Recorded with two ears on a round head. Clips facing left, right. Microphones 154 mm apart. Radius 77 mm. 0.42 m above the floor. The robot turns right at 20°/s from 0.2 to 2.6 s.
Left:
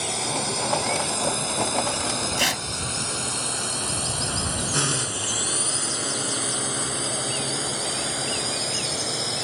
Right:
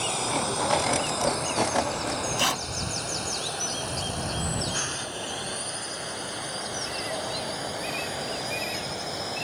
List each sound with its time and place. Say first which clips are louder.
0.0 s a drone: even; 15° left (ahead or behind); by 9.4 s 60° left (ahead or behind)
2.4 s tearing paper: left 1 dB; 25° left (ahead or behind); by 2.6 s 20° left (ahead or behind)